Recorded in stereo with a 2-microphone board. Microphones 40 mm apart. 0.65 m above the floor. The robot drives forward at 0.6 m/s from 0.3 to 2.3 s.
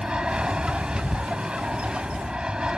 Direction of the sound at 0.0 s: 20° right (ahead or behind).